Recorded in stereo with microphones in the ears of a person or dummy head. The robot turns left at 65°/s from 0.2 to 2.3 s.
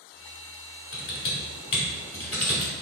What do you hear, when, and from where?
0.9 s typing on a keyboard: 70° left (ahead or behind), 1.4 m; by 2.7 s 5° left (ahead or behind), 1.4 m